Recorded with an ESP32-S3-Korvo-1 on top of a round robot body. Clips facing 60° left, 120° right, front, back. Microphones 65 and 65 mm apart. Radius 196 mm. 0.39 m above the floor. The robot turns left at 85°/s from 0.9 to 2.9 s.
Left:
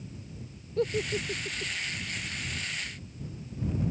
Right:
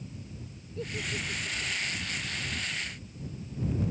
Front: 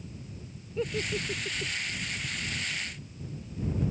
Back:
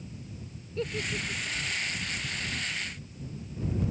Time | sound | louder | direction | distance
0.8 | a giggle | left 7 dB, front 1 dB | 80° left | ?